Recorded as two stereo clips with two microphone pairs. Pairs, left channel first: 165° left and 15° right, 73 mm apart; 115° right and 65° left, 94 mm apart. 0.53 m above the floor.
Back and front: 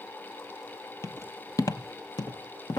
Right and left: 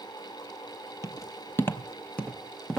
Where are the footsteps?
155° right, 0.8 m; by 2.8 s 160° left, 1.3 m.